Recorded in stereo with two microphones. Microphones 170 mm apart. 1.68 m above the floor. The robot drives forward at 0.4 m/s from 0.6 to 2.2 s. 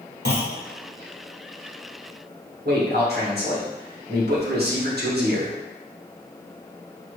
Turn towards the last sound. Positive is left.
turn(degrees=-70)  # may be behind; listen again after turning